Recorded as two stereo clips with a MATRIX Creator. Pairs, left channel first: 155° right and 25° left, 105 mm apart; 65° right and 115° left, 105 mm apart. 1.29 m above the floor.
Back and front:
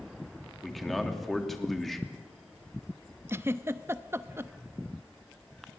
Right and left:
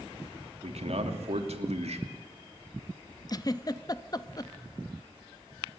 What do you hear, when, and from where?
0.6 s a man speaking: 115° left, 2.5 m
3.3 s a giggle: 35° right, 0.8 m